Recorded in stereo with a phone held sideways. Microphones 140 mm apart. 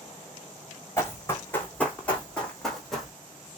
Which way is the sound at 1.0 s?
20° left (ahead or behind).